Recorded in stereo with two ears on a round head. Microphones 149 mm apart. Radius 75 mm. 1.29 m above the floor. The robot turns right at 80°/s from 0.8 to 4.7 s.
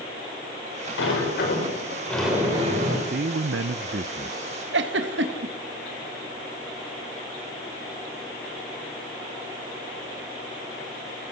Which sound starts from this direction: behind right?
A man speaking, at 3.1 s.